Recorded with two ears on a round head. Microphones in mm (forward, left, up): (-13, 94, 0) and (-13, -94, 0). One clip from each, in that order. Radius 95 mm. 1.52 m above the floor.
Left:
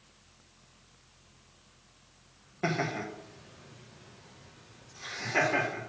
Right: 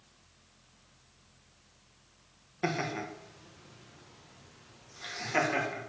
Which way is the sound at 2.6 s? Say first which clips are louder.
Left 1 dB; 15° right (ahead or behind).